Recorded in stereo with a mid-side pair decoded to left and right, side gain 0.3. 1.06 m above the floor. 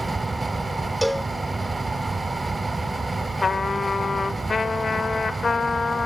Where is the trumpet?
45° left, 0.7 m.